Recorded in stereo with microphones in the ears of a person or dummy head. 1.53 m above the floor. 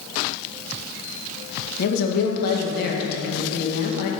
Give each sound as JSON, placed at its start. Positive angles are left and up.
{"t": 1.8, "sound": "a woman speaking", "side_deg": 60, "distance_m": 1.8}